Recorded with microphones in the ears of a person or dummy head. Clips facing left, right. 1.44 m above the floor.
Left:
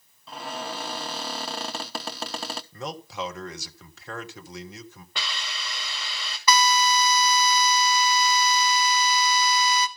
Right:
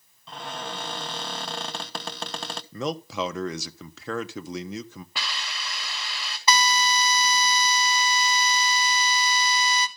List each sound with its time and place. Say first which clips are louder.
0.3 s a cupboard door: left 1 dB; 5° left (ahead or behind), 0.6 m
2.7 s a man speaking: right 10 dB; 65° right (ahead or behind), 1.0 m
5.2 s a hiss: left 1 dB; 5° right (ahead or behind), 2 m
6.5 s a drill: left 2 dB; 30° right (ahead or behind), 1.2 m